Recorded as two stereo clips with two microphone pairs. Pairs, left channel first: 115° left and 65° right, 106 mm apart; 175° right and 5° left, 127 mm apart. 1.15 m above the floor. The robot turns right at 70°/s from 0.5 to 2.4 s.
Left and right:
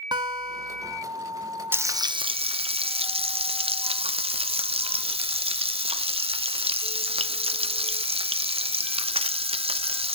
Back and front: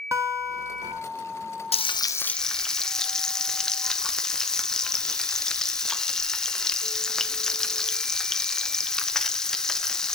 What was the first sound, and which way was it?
A guitar, 45° right.